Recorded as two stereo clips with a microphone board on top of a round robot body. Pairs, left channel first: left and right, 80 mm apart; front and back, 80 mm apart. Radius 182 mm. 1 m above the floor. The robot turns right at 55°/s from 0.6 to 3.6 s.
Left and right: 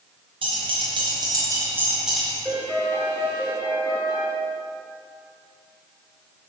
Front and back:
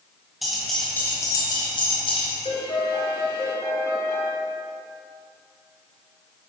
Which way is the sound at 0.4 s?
90° right.